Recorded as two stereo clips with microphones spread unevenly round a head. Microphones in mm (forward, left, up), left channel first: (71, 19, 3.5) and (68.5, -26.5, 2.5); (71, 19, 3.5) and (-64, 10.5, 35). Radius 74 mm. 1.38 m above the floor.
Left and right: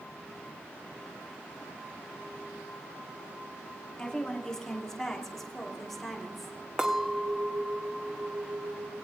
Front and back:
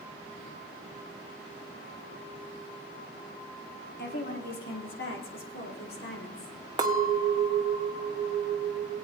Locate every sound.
4.0 s a woman speaking: 15° left, 2.5 m; by 6.6 s straight ahead, 3.5 m
6.8 s a clink: 165° right, 0.8 m